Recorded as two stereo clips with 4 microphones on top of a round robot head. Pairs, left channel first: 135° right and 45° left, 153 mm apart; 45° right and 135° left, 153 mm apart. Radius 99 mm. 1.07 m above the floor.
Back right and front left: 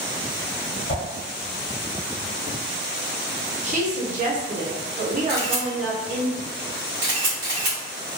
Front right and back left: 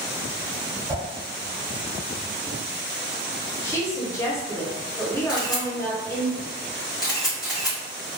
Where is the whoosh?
170° right, 1.3 m.